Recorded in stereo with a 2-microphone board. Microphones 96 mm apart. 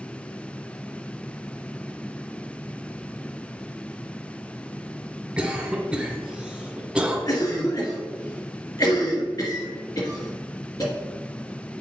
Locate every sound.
5.4 s a cough: 10° right (ahead or behind), 1.4 m
7.3 s a cough: 40° left (ahead or behind), 1.9 m